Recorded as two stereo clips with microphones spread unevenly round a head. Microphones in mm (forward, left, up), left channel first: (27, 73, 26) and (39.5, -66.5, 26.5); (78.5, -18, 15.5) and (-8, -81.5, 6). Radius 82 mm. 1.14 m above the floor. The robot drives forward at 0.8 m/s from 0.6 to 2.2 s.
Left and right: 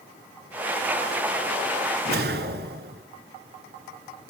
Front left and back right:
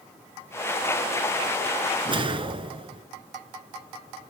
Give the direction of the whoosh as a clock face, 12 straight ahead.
3 o'clock.